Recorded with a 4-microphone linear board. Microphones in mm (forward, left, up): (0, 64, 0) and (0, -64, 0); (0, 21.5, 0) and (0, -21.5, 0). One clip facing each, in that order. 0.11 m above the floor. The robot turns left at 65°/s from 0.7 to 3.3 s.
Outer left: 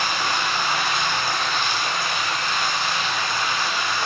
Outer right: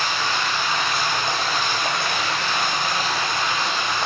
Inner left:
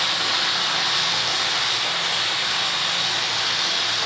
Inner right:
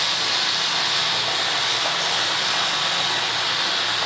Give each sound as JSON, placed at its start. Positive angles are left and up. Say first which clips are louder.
{"t": 0.0, "sound": "running water", "louder": "even, inner left 1 dB", "azimuth_deg": 15, "distance_m": 1.1}